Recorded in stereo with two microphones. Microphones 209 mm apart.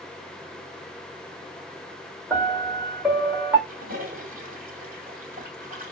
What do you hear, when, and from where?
2.3 s a piano: 10° right (ahead or behind), 1.4 m
3.7 s a toilet flushing: 45° right (ahead or behind), 2.0 m